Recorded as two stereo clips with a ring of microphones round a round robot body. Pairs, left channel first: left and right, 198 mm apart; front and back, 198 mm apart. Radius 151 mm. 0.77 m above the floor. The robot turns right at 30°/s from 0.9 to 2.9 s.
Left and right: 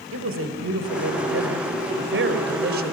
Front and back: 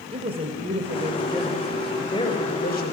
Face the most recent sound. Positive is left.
turn(degrees=-50)